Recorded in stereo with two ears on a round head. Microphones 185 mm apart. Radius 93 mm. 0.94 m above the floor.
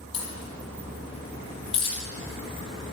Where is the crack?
25° left (ahead or behind), 4.5 m.